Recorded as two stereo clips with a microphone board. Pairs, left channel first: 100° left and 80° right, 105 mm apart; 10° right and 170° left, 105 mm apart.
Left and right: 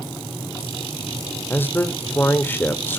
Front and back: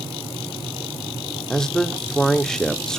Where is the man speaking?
65° left, 0.8 m.